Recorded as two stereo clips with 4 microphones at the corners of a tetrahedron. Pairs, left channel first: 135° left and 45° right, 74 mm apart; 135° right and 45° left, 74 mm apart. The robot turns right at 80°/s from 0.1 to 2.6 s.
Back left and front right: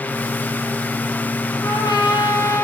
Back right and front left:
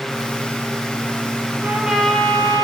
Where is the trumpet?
110° left, 6.5 m; by 2.6 s 170° right, 6.5 m.